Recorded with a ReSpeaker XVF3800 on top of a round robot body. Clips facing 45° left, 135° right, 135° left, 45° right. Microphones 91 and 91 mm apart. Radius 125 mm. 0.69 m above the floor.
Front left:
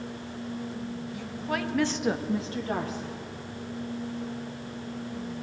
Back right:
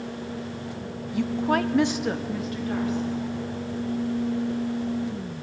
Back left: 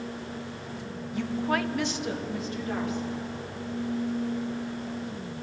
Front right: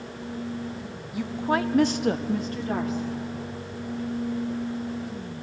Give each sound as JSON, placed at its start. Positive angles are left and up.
{"t": 1.1, "sound": "a woman speaking", "azimuth_deg": -125, "distance_m": 1.1}